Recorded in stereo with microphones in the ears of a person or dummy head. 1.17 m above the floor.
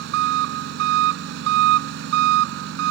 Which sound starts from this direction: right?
An engine running, at 0.0 s.